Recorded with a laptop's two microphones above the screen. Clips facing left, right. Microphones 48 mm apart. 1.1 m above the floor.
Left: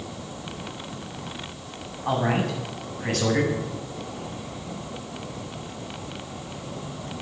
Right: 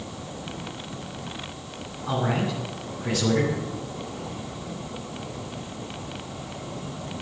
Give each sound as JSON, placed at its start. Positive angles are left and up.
{"t": 2.0, "sound": "a man speaking", "side_deg": 55, "distance_m": 8.5}